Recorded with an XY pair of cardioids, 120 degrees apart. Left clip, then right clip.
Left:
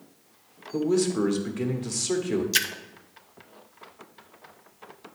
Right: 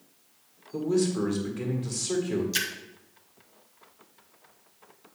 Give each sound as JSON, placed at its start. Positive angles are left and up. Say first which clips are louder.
{"t": 0.7, "sound": "a man speaking", "louder": "left 2 dB", "azimuth_deg": 25, "distance_m": 1.7}
{"t": 2.5, "sound": "a splash", "louder": "left 6 dB", "azimuth_deg": 35, "distance_m": 0.8}